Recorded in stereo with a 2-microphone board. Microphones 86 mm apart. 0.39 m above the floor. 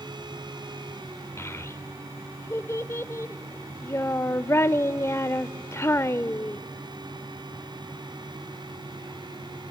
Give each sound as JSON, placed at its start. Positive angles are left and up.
{"t": 1.4, "sound": "a child speaking", "side_deg": 30, "distance_m": 0.6}